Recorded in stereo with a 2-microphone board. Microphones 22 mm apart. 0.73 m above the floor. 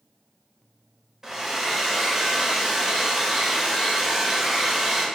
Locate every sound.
1.2 s a hair dryer: 20° right (ahead or behind), 0.7 m